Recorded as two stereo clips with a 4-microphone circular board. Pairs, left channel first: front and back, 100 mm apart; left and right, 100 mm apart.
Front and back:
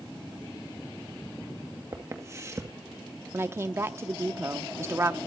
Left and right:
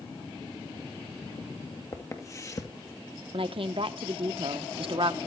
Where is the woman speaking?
115° right, 1.0 m.